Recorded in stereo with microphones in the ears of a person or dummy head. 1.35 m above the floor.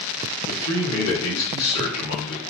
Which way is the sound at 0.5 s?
90° left.